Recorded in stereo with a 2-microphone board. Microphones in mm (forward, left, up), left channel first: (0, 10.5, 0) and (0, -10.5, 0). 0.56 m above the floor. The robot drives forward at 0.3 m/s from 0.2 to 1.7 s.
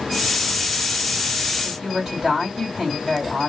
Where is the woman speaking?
5° left (ahead or behind), 4 m.